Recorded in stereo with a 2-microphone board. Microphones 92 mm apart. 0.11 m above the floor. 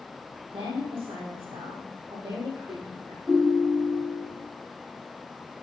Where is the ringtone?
Centre (ahead or behind), 4 m.